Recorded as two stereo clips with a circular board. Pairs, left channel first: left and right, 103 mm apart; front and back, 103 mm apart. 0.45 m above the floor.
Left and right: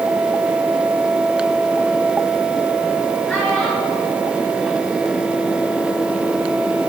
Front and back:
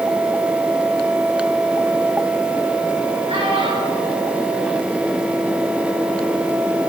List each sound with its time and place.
3.3 s a child speaking: 170° left, 5.5 m